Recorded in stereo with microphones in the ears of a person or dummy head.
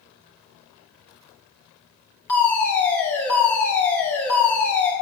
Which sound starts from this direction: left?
A fire alarm, at 2.3 s.